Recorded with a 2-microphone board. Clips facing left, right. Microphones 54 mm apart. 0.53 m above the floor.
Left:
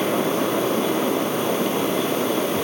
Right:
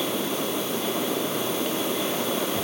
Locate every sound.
Only background noise.